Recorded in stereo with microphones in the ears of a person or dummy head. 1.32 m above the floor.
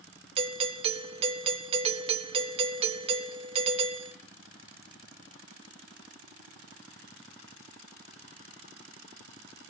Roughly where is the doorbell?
Right.